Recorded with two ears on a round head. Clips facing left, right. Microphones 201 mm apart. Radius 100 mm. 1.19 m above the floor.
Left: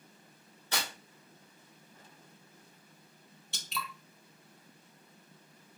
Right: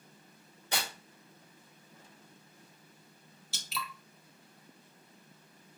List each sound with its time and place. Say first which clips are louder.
0.7 s tearing paper: right 1 dB; 15° right (ahead or behind), 2.5 m
3.5 s dripping: even; 5° right (ahead or behind), 0.8 m